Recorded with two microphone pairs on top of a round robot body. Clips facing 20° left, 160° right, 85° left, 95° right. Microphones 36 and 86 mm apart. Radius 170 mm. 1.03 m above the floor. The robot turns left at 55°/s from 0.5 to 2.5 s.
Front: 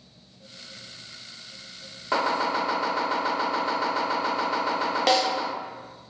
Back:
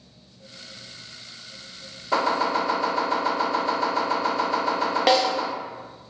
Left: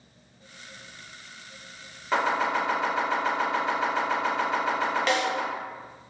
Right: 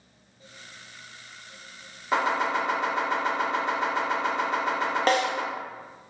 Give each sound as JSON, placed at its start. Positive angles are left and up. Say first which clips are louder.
{"t": 2.1, "sound": "chopping", "louder": "back 2 dB, even", "azimuth_deg": -10, "distance_m": 1.1}
{"t": 5.1, "sound": "a snare drum", "louder": "back 3 dB, right 5 dB", "azimuth_deg": -90, "distance_m": 0.7}